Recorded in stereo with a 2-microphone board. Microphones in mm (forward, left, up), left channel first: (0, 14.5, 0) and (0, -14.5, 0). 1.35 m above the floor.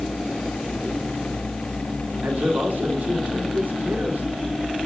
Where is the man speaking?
70° right (ahead or behind), 3.5 m.